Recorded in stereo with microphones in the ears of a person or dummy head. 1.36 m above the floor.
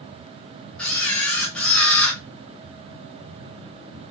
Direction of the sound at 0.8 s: 5° left (ahead or behind).